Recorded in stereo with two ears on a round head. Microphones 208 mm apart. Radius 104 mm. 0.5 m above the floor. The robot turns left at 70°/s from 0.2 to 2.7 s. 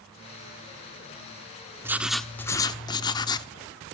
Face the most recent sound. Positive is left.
turn(degrees=15)  # may be behind; listen again after turning